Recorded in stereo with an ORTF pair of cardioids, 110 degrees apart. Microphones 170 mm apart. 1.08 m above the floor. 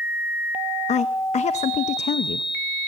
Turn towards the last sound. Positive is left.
turn(degrees=40)